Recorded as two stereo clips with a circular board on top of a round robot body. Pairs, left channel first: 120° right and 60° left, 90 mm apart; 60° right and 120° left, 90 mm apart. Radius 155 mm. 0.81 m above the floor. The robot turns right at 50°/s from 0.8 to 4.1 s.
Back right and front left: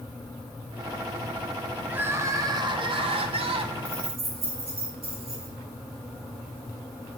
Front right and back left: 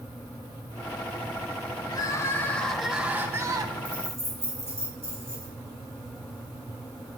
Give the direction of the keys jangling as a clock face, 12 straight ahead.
11 o'clock.